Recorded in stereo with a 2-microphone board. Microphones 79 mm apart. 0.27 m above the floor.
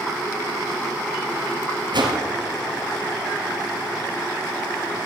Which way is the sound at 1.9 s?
70° right (ahead or behind).